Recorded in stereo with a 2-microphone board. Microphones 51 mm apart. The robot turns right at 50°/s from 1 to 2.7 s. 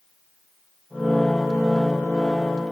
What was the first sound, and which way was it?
Only background noise.